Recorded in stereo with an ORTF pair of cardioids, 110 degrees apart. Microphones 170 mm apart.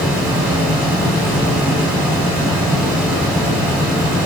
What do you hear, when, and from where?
0.0 s a fan: 5° right, 1.0 m